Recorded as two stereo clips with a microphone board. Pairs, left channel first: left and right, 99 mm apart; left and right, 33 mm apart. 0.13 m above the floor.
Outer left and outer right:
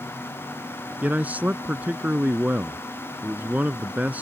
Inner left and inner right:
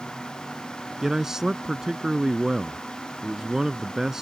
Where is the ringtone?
No ringtone in this recording.